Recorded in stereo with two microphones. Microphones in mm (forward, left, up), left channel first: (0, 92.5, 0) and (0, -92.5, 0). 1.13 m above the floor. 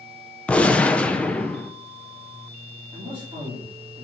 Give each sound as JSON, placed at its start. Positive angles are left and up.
{"t": 0.5, "sound": "a gunshot", "side_deg": 5, "distance_m": 0.6}
{"t": 2.9, "sound": "a man speaking", "side_deg": -30, "distance_m": 3.5}